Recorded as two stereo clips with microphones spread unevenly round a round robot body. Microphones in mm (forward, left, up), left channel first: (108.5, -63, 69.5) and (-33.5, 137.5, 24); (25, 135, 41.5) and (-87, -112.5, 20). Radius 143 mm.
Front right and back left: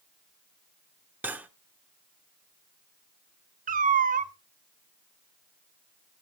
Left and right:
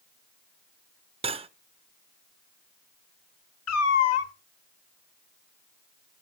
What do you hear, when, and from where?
1.2 s cutlery clinking: 170° right, 0.6 m
3.7 s a cat meowing: 85° left, 0.8 m